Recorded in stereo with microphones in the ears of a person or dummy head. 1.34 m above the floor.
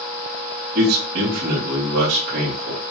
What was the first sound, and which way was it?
A man speaking, 50° right (ahead or behind).